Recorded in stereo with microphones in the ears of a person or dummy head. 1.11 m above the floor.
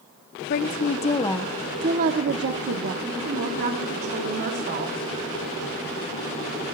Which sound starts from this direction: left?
A woman speaking, at 0.5 s.